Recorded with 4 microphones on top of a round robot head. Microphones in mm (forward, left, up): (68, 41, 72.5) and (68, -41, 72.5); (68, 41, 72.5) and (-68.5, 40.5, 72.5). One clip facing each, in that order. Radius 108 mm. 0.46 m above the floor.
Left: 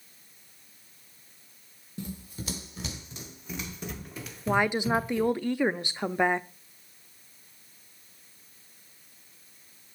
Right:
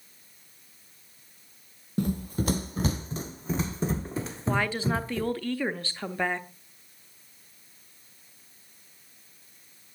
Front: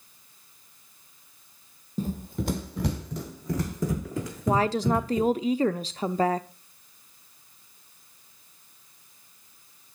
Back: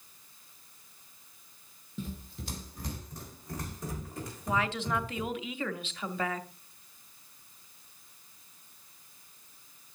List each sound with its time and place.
2.0 s running footsteps: 60° right, 0.8 m; by 5.3 s 25° right, 2.5 m
4.5 s a woman speaking: 25° left, 1.0 m